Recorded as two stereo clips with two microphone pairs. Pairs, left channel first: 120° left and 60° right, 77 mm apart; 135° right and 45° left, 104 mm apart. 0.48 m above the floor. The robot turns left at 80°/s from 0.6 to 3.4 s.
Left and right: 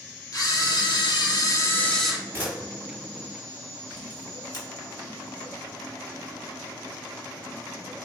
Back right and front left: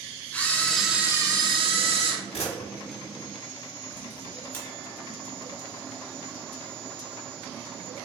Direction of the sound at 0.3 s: 150° left.